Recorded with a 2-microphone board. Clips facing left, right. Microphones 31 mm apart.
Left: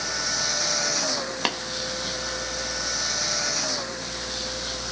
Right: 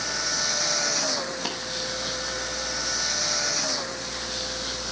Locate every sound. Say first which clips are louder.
1.4 s tapping: left 5 dB; 60° left (ahead or behind), 2 m